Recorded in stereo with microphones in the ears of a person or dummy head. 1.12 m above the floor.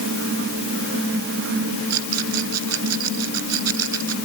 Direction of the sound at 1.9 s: 80° right.